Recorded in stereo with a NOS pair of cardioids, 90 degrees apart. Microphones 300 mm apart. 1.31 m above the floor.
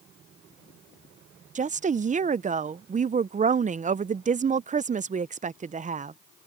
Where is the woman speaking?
25° right.